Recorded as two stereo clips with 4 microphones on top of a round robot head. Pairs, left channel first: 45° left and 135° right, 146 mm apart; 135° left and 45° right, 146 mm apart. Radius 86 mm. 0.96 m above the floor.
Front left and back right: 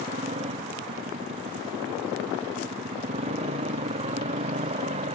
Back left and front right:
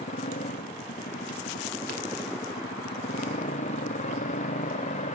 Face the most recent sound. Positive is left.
turn(degrees=175)